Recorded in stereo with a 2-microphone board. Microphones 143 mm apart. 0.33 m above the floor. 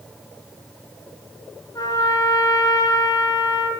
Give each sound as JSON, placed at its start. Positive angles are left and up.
{"t": 1.8, "sound": "a trumpet", "side_deg": 25, "distance_m": 1.3}